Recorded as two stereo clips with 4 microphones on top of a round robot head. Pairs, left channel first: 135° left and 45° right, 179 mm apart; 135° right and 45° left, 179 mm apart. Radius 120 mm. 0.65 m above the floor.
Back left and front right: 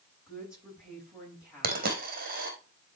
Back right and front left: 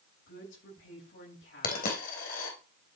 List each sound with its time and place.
0.3 s a woman speaking: 130° right, 9.5 m
1.6 s a dropped coin: 85° right, 3.5 m